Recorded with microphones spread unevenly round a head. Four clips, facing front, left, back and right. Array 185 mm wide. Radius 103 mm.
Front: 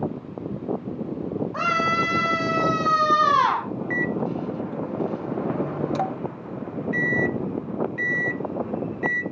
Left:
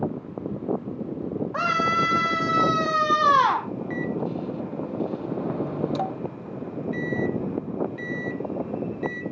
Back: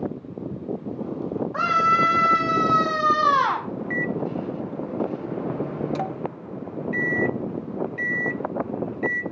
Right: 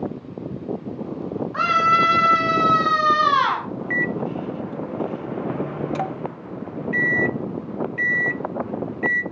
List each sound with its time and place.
1.5 s a scream: 125° left, 3.5 m
3.9 s a microwave: 40° right, 0.6 m